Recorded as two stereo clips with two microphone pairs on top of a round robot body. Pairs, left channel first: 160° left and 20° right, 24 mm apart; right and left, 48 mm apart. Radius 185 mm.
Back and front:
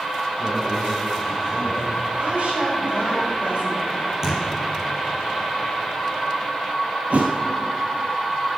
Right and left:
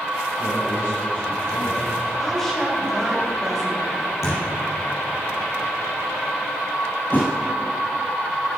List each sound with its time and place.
0.4 s a man speaking: 100° right, 4.5 m
2.2 s a woman speaking: 10° right, 4 m
4.2 s a thud: 90° right, 4.5 m
7.1 s a thud: 35° right, 0.5 m